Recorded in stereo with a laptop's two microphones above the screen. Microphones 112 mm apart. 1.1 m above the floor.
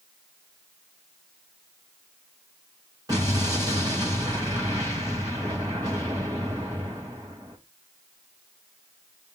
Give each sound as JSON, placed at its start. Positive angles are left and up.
{"t": 3.1, "sound": "an explosion", "side_deg": -35, "distance_m": 2.5}